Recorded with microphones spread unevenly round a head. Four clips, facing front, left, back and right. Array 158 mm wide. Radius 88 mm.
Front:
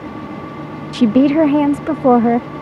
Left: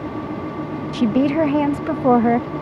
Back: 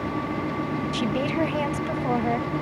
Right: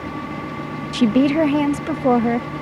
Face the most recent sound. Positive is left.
turn(degrees=5)